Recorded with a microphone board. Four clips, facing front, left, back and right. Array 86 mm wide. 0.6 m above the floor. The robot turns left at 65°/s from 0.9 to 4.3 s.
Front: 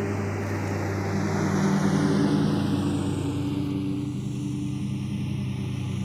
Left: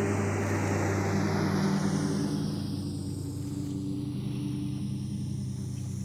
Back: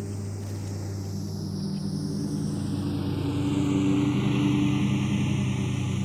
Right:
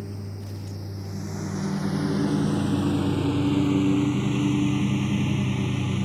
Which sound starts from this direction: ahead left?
A lawn mower, at 0.0 s.